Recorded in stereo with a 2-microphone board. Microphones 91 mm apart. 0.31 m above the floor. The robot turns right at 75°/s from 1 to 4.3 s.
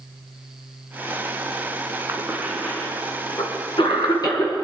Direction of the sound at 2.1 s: 35° right (ahead or behind).